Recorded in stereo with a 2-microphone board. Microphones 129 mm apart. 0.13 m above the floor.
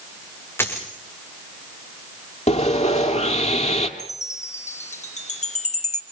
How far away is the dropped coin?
About 4.5 m.